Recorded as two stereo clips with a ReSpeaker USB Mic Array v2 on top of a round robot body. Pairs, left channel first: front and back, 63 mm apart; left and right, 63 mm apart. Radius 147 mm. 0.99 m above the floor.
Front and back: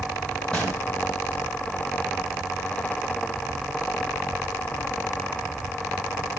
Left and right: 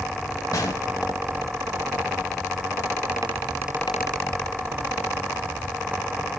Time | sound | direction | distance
0.5 | a gunshot | 75° left | 0.8 m